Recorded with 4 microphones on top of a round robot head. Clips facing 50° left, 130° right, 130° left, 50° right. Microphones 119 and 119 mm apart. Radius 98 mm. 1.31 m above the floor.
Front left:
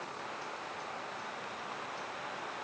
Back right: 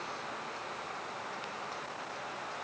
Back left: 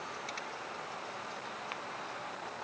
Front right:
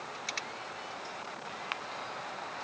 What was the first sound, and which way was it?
Only background noise.